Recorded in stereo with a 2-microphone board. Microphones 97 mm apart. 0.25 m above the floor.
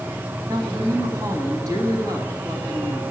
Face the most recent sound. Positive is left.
turn(degrees=-40)  # may be behind; listen again after turning